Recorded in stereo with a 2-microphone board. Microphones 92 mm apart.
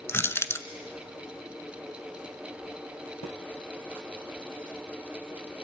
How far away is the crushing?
About 1.1 m.